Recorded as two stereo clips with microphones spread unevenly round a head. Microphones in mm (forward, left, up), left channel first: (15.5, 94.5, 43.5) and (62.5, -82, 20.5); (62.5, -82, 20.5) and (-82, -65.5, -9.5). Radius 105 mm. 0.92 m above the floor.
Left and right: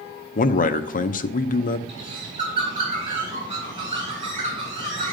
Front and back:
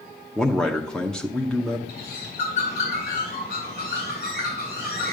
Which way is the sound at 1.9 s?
10° right.